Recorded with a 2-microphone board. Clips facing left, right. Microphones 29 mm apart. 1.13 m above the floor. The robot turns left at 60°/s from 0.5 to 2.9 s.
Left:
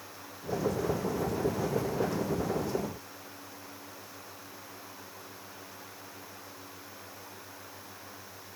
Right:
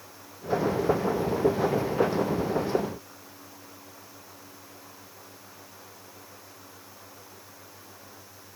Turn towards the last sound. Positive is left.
No sound to turn to.